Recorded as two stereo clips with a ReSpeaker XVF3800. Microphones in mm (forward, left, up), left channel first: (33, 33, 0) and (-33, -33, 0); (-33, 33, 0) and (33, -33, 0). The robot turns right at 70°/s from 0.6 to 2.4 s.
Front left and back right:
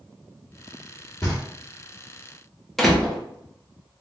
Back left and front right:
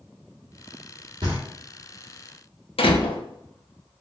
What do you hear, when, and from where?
1.2 s knocking: 10° right, 1.4 m; by 1.4 s 5° left, 1.4 m
2.8 s a door slam: 135° left, 0.7 m